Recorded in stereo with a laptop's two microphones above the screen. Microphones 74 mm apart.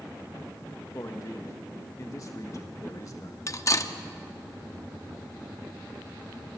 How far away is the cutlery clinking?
About 0.9 m.